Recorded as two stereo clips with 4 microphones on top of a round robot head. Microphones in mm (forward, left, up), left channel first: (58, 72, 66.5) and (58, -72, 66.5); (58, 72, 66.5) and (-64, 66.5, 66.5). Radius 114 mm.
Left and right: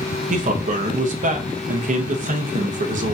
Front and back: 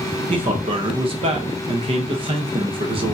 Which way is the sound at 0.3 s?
130° right.